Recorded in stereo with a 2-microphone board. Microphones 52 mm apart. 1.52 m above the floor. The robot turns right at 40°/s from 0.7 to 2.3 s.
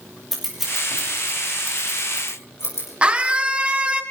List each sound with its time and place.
0.3 s scissors: 5° right (ahead or behind), 6.5 m; by 2.9 s 60° left (ahead or behind), 6.5 m
3.0 s a scream: 25° right (ahead or behind), 2 m